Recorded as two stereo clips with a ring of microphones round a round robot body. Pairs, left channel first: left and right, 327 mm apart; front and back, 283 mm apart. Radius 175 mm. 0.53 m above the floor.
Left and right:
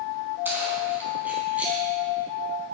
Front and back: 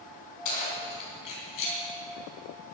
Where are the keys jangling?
5° right, 4.5 m.